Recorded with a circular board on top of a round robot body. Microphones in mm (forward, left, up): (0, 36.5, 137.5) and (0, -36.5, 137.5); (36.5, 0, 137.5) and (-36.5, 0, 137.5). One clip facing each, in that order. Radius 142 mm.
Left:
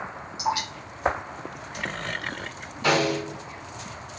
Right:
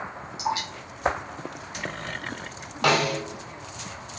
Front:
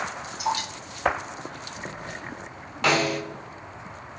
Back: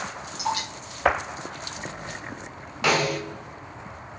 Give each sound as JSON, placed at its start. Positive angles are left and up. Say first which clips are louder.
{"t": 0.4, "sound": "dripping", "louder": "left 1 dB, front 1 dB", "azimuth_deg": -155, "distance_m": 1.4}
{"t": 2.8, "sound": "a snare drum", "louder": "even, even", "azimuth_deg": -95, "distance_m": 1.1}